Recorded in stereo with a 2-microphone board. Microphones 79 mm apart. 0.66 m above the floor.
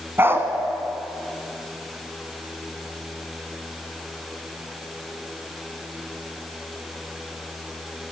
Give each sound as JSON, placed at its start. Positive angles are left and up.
{"t": 0.2, "sound": "a dog barking", "side_deg": -30, "distance_m": 1.9}